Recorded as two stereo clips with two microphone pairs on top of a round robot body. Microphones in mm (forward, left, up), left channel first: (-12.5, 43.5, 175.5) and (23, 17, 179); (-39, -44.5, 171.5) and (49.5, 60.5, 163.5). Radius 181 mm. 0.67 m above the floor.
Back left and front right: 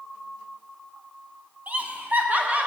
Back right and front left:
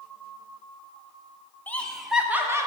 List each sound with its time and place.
1.7 s laughter: 60° right, 1.1 m; by 2.7 s 5° left, 1.2 m